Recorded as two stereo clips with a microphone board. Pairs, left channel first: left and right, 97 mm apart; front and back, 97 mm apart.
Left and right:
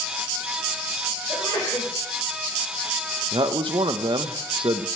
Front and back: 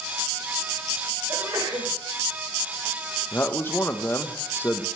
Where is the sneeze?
130° left, 4.5 m.